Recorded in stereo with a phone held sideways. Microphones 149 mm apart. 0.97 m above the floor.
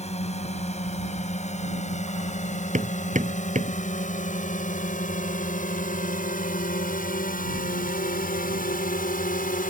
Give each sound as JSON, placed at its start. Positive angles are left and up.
{"t": 0.0, "sound": "a drone", "side_deg": 45}
{"t": 2.7, "sound": "hammering", "side_deg": -55}